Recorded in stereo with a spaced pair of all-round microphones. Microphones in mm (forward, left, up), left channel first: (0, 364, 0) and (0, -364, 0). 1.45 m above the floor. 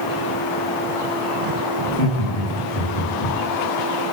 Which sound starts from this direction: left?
Laughter, at 1.8 s.